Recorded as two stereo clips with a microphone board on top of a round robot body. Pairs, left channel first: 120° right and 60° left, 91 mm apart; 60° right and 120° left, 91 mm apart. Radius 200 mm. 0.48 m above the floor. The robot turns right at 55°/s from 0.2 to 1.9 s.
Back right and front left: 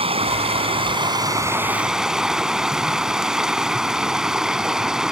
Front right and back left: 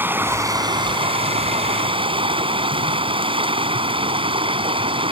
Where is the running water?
50° left; by 5.1 s 145° left.